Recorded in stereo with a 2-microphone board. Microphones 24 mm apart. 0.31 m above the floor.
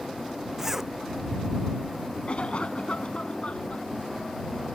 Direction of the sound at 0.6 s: 10° right (ahead or behind).